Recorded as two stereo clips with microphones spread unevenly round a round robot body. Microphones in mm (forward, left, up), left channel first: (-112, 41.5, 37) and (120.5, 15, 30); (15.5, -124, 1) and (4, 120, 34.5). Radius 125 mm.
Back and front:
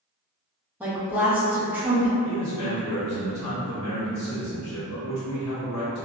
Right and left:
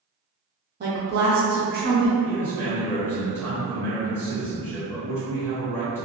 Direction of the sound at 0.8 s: 70° left.